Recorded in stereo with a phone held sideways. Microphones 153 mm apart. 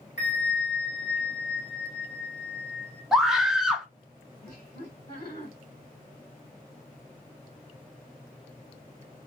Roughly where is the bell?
Left.